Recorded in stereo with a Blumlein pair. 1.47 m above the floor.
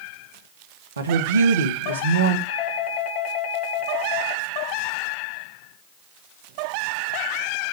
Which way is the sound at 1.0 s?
70° right.